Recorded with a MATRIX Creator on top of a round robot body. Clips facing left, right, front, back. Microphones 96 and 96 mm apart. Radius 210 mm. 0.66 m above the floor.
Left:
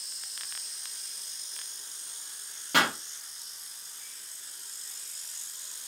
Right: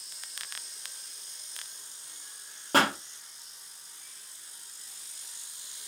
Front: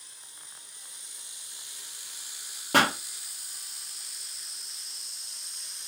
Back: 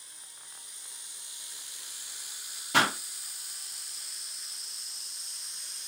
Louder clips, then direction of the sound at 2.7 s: Right 2 dB, front 3 dB; 40° right.